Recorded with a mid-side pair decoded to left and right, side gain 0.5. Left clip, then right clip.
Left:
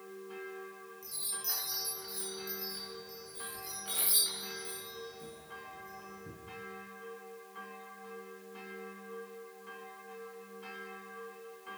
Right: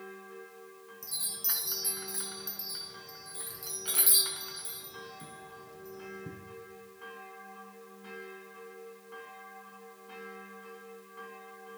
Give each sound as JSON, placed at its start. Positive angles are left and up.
{"t": 1.0, "sound": "a chime", "azimuth_deg": -50, "distance_m": 6.0}